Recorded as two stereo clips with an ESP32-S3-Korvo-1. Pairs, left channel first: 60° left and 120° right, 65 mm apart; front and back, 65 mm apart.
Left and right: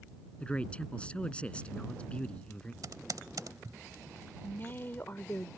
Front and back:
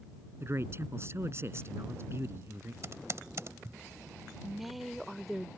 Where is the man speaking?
135° left.